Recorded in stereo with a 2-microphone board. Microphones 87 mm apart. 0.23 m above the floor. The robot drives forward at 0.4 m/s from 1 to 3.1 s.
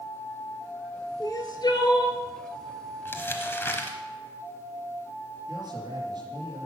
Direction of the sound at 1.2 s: 50° left (ahead or behind).